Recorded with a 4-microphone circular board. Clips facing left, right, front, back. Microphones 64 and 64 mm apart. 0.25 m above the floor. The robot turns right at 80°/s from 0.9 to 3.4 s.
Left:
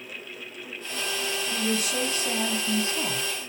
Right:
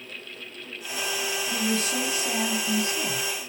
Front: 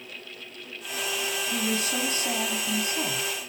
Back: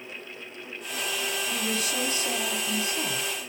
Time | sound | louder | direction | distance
1.5 | a woman speaking | right 1 dB, front 4 dB | 70° right | 1.6 m